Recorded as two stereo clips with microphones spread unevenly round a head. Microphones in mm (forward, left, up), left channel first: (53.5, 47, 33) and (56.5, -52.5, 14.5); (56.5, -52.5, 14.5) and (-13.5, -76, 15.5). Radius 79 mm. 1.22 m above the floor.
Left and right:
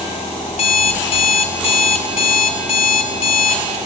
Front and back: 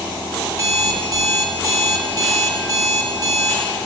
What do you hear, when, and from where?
0.5 s an alarm clock: 135° left, 0.5 m